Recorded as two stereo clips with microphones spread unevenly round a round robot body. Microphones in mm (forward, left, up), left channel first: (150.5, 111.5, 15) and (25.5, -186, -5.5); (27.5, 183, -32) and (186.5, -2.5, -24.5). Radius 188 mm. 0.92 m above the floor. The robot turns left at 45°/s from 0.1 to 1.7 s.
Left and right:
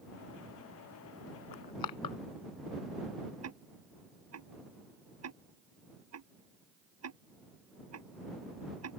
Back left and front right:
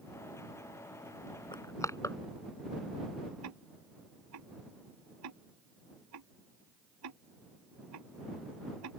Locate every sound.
1.5 s crushing: 60° left; by 2.2 s 50° left
3.4 s ticking: 70° right